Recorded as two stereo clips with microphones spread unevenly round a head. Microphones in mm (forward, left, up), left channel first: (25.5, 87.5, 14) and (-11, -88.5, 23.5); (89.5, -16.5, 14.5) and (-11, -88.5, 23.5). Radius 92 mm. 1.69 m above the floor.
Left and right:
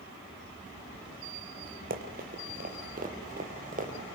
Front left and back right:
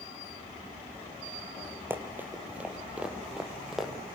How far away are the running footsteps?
About 3 m.